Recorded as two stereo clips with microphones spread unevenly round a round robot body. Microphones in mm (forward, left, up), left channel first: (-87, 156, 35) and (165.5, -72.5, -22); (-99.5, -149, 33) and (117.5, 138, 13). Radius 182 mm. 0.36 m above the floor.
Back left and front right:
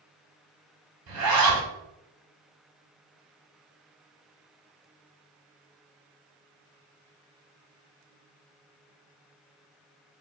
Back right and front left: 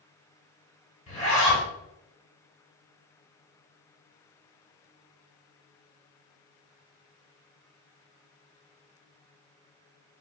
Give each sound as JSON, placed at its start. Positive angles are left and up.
{"t": 1.1, "sound": "a zipper", "azimuth_deg": -55, "distance_m": 1.5}